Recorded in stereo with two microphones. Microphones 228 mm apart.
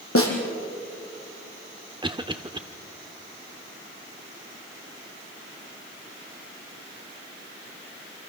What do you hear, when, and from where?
0.1 s a snare drum: 65° left (ahead or behind), 3.5 m
2.0 s a cough: 20° right (ahead or behind), 0.8 m